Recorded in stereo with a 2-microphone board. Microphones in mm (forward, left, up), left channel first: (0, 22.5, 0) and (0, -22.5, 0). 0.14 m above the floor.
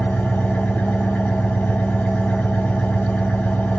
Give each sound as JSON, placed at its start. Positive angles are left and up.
{"t": 0.0, "sound": "an engine running", "side_deg": 35, "distance_m": 1.3}